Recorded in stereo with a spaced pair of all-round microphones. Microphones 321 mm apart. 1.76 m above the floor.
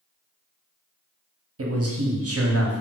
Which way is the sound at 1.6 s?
45° right (ahead or behind).